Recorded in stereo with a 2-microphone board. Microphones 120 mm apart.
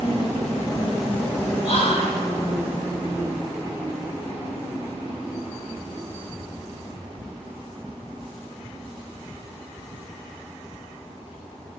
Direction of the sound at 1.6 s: 60° left (ahead or behind).